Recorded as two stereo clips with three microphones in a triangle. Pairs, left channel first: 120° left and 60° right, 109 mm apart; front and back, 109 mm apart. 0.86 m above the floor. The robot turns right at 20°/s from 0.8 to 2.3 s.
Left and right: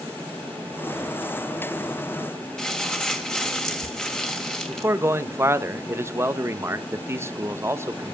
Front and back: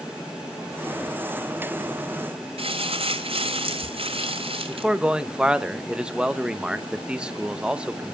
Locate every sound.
2.6 s crumpling: 160° right, 2 m
4.7 s a man speaking: 105° right, 1.0 m